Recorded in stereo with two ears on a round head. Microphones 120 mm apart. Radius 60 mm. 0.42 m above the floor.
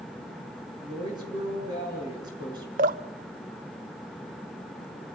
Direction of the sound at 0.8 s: 30° right (ahead or behind).